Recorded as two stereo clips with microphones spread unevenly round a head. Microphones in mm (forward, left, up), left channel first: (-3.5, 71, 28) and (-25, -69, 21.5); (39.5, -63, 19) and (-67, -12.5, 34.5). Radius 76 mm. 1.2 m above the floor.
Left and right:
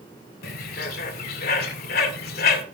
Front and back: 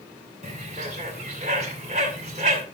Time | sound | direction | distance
0.4 | a bird | 105° left | 2 m